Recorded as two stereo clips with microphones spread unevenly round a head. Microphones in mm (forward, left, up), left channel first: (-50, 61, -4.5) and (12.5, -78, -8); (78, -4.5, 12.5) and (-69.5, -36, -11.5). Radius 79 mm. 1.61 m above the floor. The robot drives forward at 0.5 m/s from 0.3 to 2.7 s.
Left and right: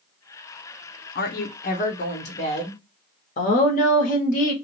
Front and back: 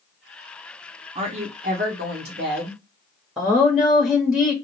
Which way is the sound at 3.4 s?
100° left.